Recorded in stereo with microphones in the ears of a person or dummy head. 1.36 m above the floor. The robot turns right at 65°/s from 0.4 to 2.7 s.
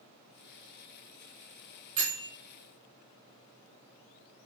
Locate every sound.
2.0 s a bell: 45° right (ahead or behind), 2 m; by 2.2 s 30° right (ahead or behind), 2 m